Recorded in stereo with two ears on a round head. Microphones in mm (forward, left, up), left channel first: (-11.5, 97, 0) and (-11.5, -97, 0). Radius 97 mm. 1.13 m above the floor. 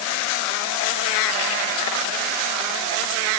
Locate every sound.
Only background noise.